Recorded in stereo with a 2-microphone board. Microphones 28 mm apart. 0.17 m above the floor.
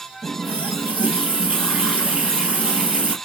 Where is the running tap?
50° right (ahead or behind), 2 m.